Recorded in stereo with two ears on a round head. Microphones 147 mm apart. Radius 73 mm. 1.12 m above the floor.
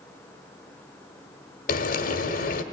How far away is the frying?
About 1.3 m.